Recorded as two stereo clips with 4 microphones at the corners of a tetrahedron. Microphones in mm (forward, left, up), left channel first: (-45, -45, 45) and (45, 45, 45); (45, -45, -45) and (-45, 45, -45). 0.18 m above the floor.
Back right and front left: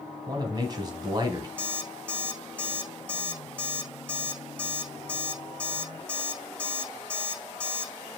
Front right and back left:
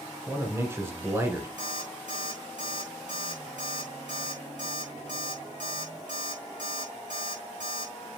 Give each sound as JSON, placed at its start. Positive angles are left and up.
{"t": 0.3, "sound": "a man speaking", "azimuth_deg": 80, "distance_m": 1.4}
{"t": 1.6, "sound": "an alarm clock", "azimuth_deg": 145, "distance_m": 5.0}